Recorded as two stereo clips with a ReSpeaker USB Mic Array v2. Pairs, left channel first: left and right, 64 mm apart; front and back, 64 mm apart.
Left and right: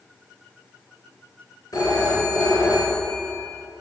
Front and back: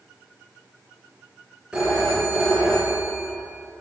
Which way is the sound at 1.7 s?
105° left.